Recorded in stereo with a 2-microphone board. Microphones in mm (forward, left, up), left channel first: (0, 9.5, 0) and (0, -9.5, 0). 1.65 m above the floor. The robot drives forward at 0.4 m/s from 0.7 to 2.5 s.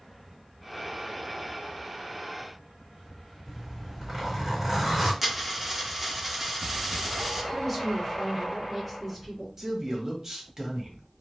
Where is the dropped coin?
15° right (ahead or behind), 1.0 m.